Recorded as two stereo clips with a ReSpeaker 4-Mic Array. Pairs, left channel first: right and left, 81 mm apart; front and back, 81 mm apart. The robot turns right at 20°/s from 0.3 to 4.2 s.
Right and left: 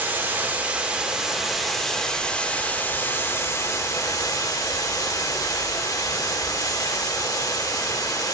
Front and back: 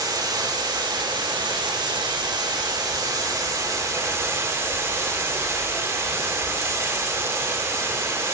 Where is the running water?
155° left, 2 m; by 8.3 s 125° right, 2 m.